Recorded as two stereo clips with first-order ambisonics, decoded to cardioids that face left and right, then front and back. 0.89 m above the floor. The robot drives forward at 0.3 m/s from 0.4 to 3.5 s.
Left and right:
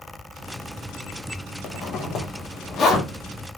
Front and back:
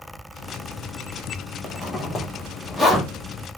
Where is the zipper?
55° left, 1.0 m; by 3.1 s 100° left, 1.0 m.